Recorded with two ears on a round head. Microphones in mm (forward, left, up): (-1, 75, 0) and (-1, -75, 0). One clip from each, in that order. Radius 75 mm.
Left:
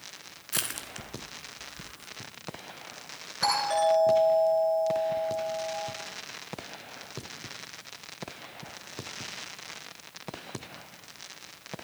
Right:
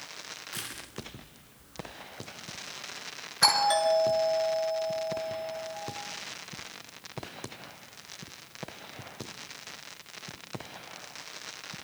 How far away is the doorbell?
About 8 m.